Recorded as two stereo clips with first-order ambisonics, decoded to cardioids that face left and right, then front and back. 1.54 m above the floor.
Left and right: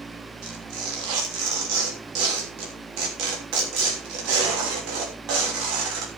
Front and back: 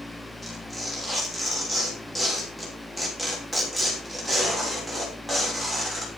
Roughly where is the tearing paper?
Right.